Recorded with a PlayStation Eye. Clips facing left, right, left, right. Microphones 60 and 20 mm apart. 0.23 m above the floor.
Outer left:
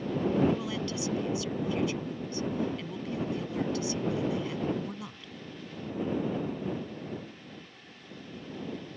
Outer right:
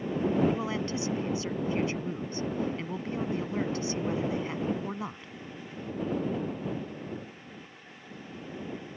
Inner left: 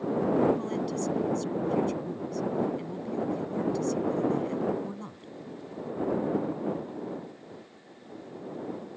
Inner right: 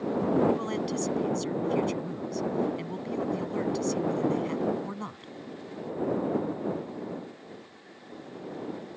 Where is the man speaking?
35° right (ahead or behind).